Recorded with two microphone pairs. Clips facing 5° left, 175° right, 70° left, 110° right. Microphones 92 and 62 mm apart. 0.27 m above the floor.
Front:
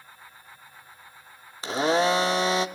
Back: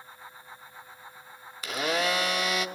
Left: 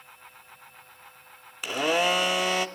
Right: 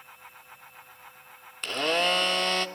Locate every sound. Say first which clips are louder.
1.6 s a blender: front 6 dB, left 2 dB; 5° right, 0.5 m